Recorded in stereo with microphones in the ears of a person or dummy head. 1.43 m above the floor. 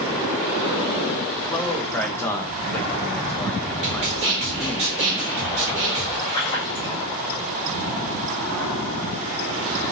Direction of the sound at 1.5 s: 20° left (ahead or behind).